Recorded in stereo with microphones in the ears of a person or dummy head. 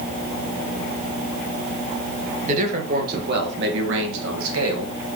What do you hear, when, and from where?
2.5 s a man speaking: 40° right (ahead or behind), 2.5 m; by 5.0 s 90° right, 2.5 m